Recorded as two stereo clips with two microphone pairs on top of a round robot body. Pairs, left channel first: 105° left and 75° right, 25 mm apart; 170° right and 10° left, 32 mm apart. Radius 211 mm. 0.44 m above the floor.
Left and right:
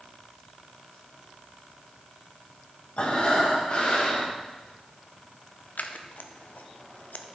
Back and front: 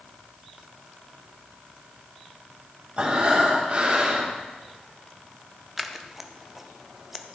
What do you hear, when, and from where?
3.0 s breathing: 60° left, 2.5 m
5.8 s scissors: 90° left, 0.8 m